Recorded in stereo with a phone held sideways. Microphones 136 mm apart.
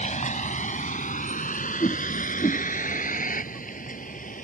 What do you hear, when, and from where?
0.0 s a vehicle: 65° left (ahead or behind); by 4.5 s 80° left
1.8 s a whoosh: 40° left (ahead or behind)